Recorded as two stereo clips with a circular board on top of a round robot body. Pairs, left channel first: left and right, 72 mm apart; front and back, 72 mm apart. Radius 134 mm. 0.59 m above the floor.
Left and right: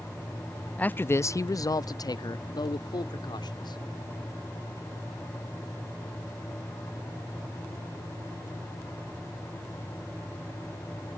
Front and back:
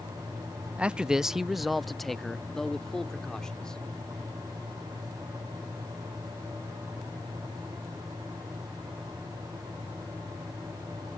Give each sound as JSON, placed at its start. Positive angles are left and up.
{"t": 0.8, "sound": "a man speaking", "azimuth_deg": 130}